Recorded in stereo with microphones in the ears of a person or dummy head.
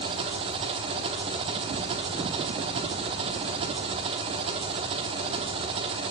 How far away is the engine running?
About 0.9 m.